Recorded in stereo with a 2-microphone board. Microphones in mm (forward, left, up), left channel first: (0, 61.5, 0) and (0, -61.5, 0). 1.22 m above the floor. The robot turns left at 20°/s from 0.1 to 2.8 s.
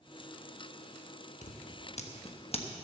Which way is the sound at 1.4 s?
75° left (ahead or behind).